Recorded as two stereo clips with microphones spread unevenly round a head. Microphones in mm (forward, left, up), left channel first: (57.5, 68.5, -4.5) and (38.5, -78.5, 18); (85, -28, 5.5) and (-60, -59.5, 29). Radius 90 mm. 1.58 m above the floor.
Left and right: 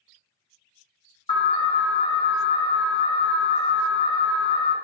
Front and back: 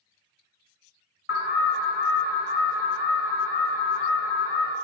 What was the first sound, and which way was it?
An alarm, 30° left.